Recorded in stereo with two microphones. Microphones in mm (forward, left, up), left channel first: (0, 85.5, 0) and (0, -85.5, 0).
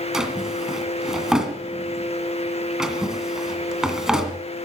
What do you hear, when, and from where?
0.1 s a drawer: centre (ahead or behind), 2 m